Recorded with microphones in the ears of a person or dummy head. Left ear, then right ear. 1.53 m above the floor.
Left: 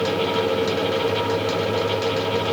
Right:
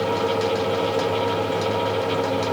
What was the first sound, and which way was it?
Only background noise.